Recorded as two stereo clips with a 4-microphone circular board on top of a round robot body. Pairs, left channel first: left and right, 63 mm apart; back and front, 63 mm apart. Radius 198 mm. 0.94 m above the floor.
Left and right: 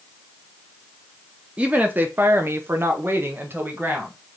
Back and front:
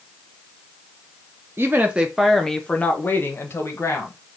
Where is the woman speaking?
30° right, 0.7 m; by 4.1 s 145° right, 1.2 m.